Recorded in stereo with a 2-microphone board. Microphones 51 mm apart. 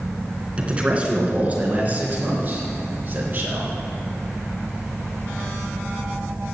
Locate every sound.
0.6 s a man speaking: 20° right (ahead or behind), 3 m; by 3.7 s 45° right (ahead or behind), 4.5 m